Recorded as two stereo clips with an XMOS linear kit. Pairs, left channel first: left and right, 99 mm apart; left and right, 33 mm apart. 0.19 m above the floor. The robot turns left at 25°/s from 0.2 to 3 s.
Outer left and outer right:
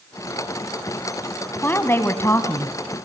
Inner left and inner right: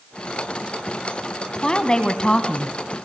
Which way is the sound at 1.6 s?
20° left (ahead or behind).